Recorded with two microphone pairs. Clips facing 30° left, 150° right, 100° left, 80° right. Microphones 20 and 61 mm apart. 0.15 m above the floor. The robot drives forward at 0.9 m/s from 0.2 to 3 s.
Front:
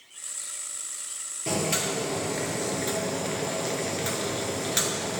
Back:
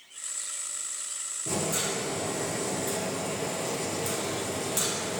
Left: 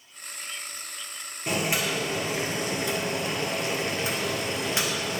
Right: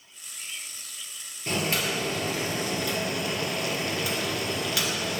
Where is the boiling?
25° left, 3 m; by 5.2 s 45° left, 2 m.